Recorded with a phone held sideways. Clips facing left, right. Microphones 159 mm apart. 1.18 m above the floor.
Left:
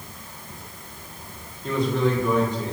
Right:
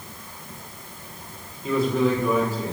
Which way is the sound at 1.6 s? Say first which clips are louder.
Right 1 dB; 5° right (ahead or behind).